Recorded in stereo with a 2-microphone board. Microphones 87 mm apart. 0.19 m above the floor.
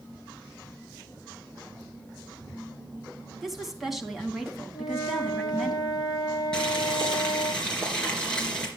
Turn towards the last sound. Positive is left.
turn(degrees=10)  # may be behind; listen again after turning